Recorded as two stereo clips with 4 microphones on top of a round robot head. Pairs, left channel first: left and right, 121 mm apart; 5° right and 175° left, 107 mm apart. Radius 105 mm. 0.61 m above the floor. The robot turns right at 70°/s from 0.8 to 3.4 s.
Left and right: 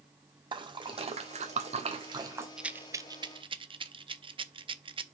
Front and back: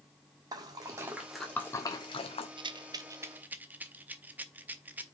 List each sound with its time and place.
0.5 s a splash: 135° right, 1.6 m; by 2.5 s 15° right, 1.6 m
2.6 s a rattle: 175° right, 0.8 m; by 5.0 s 115° right, 0.8 m